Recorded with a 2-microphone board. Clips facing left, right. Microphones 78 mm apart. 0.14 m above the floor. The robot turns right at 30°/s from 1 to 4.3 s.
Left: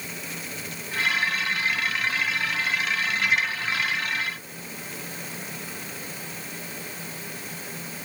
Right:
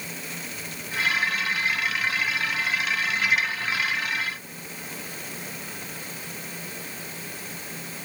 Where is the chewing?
No chewing in this recording.